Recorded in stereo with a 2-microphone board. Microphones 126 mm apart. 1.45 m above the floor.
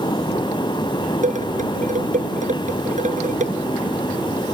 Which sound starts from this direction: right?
Dishes clattering, at 1.2 s.